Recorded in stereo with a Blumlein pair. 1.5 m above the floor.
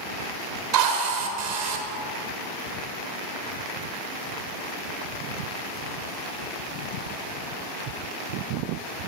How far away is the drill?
About 0.8 m.